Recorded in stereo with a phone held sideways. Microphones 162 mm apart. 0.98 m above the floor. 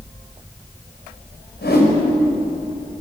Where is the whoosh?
80° left, 5 m.